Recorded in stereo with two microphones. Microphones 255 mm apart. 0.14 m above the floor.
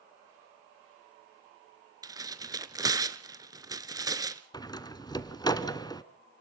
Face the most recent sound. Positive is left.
turn(degrees=15)  # may be behind; listen again after turning